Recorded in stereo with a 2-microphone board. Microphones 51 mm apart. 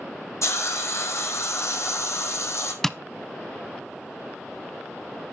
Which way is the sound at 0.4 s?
65° left (ahead or behind).